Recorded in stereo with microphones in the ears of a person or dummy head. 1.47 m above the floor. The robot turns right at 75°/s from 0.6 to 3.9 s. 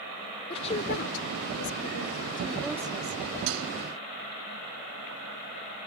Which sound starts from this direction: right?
Dishes clattering, at 3.5 s.